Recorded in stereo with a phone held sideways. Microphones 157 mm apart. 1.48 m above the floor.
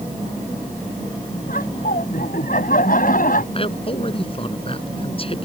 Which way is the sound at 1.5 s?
65° left (ahead or behind).